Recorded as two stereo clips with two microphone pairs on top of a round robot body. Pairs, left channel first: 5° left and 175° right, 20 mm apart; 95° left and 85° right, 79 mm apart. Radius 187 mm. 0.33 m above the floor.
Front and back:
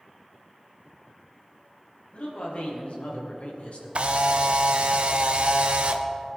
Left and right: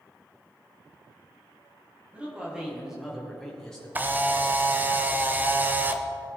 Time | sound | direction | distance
2.1 | a man speaking | 5° right | 4.5 m
4.0 | a camera shutter | 155° right | 1.2 m